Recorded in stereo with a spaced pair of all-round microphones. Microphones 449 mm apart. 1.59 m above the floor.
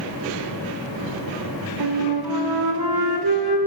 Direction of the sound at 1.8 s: 55° right (ahead or behind).